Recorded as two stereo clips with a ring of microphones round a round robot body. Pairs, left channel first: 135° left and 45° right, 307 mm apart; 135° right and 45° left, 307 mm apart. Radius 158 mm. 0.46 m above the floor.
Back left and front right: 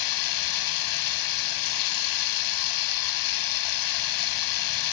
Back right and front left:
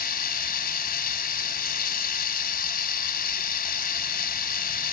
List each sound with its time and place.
0.0 s running water: 160° left, 0.9 m